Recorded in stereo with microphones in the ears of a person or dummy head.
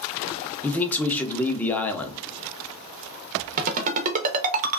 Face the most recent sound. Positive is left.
turn(degrees=-40)  # may be behind; listen again after turning